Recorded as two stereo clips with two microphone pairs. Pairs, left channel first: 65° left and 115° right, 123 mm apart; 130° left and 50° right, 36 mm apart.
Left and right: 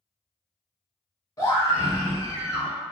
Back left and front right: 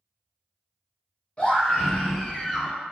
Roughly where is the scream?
Left.